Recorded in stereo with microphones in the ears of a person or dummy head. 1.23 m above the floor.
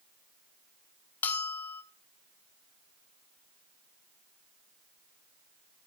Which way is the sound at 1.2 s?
15° left (ahead or behind).